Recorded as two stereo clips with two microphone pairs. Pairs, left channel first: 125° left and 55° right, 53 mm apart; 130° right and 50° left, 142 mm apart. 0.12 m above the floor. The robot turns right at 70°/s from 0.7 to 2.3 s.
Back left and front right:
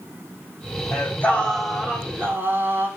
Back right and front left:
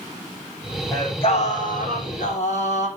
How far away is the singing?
About 4.5 m.